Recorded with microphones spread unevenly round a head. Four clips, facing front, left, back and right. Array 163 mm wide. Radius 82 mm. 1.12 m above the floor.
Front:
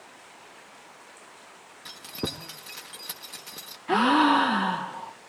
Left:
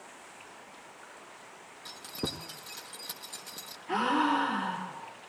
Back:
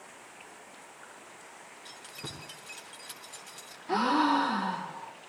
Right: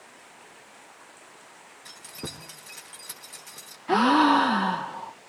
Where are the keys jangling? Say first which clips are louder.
Left 3 dB, front 13 dB; 15° left, 1.2 m.